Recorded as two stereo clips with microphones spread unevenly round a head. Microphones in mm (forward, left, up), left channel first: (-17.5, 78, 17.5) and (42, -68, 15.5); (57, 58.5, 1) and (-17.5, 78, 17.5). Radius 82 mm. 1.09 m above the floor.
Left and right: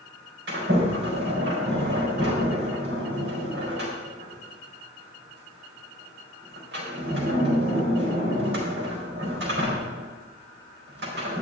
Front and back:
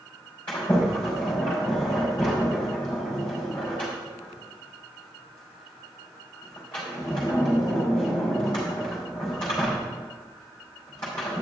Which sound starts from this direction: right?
A sliding door, at 0.5 s.